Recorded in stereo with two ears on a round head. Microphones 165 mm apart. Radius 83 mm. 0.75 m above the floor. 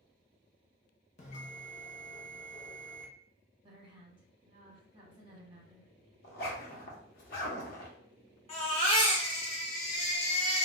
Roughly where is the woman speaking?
Right.